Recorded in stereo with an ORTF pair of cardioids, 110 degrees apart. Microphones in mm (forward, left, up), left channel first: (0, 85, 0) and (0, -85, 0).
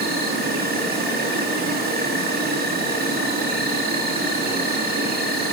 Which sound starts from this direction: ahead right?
An insect, at 0.0 s.